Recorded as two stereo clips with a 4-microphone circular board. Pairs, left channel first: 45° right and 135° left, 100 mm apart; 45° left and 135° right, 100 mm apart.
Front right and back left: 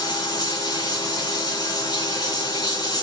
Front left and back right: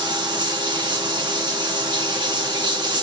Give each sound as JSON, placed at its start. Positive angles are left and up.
{"t": 0.0, "sound": "running water", "azimuth_deg": -95, "distance_m": 2.5}